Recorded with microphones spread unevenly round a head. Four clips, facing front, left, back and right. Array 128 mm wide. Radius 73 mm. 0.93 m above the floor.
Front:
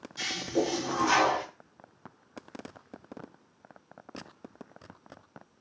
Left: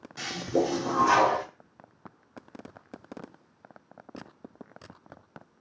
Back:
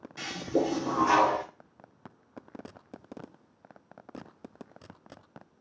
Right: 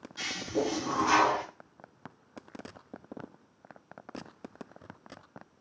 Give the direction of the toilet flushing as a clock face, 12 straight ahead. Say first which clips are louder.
Left 5 dB, back 1 dB; 8 o'clock.